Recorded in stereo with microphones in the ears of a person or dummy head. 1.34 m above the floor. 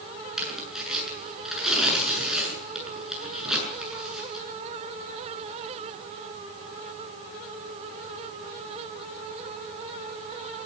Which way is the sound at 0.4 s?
Centre (ahead or behind).